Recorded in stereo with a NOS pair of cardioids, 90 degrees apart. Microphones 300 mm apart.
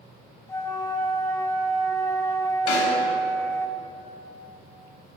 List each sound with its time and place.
0.5 s a flute: 10° left, 0.6 m
2.7 s a snare drum: 70° left, 2 m